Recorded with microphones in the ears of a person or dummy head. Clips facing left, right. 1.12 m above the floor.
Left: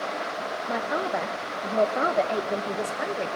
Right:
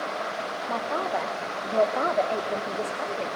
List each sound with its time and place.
0.7 s a man speaking: 10° left (ahead or behind), 1.0 m